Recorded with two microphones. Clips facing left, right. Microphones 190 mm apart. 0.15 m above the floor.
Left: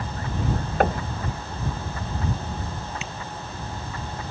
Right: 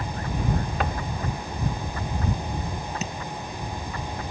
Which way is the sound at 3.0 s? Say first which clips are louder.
Right 4 dB; 40° right (ahead or behind).